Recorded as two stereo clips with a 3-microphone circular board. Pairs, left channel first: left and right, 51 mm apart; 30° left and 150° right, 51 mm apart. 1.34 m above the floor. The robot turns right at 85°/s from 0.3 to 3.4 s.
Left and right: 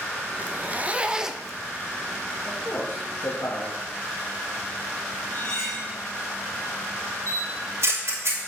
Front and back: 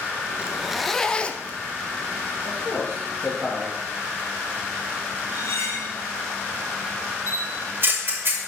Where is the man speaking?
30° left, 2 m; by 3.8 s 110° left, 2 m.